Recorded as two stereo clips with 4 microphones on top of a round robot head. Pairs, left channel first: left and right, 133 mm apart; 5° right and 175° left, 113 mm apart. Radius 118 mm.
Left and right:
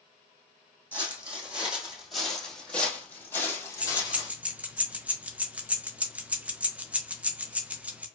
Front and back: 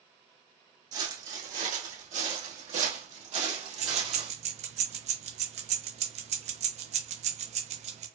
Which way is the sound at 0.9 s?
165° right.